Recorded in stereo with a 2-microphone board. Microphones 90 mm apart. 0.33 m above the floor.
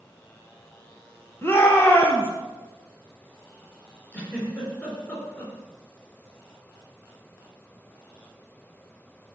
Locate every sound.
1.4 s a shout: 25° left (ahead or behind), 1.9 m
4.1 s a giggle: 20° left (ahead or behind), 3.5 m